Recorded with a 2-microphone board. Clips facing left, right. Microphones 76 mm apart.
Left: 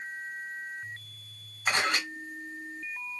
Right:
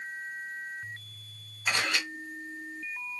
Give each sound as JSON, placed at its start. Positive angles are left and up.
{"t": 1.7, "sound": "a camera shutter", "side_deg": 40, "distance_m": 2.0}